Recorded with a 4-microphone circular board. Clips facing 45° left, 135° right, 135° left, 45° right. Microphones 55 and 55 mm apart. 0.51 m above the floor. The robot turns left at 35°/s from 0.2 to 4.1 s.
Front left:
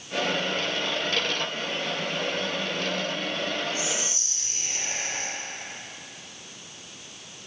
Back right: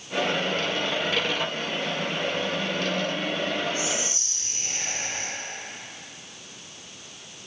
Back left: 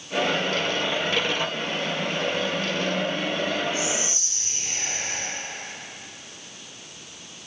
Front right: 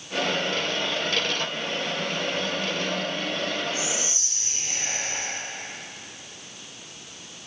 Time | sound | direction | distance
3.7 | whispering | 110° right | 1.6 m